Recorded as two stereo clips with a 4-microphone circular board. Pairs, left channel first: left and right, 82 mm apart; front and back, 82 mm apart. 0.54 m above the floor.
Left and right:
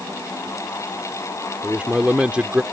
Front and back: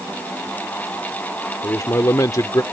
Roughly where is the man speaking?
Ahead.